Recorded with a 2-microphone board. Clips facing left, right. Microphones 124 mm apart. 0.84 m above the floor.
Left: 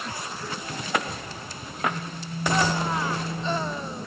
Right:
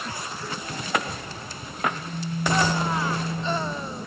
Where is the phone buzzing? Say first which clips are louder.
Right 1 dB; 35° left (ahead or behind), 0.9 m.